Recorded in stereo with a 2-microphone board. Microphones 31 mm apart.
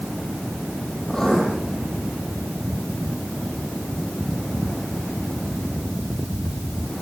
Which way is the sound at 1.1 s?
15° left (ahead or behind).